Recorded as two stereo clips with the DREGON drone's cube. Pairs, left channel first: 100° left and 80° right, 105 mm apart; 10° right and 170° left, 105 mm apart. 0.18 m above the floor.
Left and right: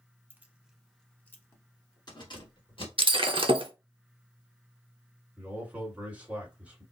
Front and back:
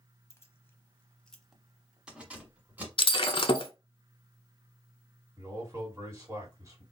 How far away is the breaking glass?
About 0.6 m.